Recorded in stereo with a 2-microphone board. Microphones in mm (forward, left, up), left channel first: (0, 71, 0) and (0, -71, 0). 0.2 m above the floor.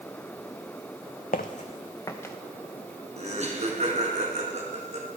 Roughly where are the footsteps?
Left.